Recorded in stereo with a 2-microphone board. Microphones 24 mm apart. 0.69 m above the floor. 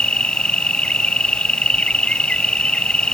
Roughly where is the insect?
Left.